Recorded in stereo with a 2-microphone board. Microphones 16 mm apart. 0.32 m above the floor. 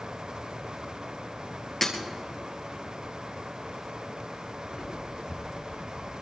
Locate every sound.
1.8 s breaking glass: 25° left (ahead or behind), 2.5 m
4.7 s footsteps: 75° left (ahead or behind), 4 m; by 6.1 s 65° left (ahead or behind), 4.5 m